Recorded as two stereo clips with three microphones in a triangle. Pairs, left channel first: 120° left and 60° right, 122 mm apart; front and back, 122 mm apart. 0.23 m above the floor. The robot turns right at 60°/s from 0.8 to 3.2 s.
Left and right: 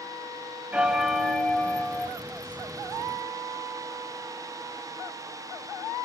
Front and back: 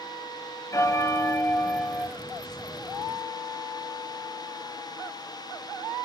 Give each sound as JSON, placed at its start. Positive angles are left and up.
{"t": 0.7, "sound": "a bell", "azimuth_deg": 10, "distance_m": 1.3}